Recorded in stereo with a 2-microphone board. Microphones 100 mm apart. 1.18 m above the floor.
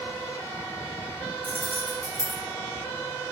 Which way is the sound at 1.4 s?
80° right.